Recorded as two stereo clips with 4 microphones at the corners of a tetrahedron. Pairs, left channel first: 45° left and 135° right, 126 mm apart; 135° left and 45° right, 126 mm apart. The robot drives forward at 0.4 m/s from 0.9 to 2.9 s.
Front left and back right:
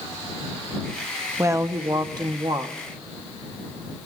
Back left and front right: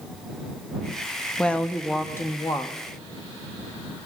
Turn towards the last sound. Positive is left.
turn(degrees=-170)